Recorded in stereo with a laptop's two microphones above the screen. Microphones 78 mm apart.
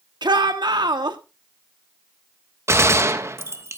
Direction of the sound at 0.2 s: 70° right (ahead or behind).